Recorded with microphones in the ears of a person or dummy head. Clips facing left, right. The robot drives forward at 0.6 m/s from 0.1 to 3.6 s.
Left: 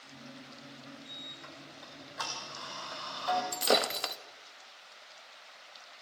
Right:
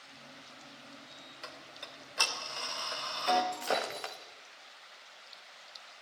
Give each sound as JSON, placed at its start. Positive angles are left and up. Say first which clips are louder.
{"t": 1.4, "sound": "ticking", "louder": "even", "side_deg": -55, "distance_m": 2.0}
{"t": 3.5, "sound": "breaking glass", "louder": "left 5 dB", "side_deg": 50, "distance_m": 1.4}